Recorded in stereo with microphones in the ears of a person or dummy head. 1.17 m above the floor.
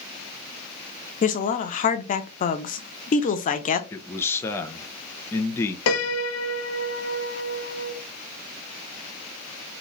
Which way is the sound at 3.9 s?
15° left (ahead or behind).